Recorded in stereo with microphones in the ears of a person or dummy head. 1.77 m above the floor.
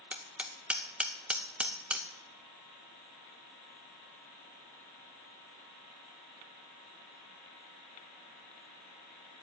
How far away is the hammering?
About 1.0 m.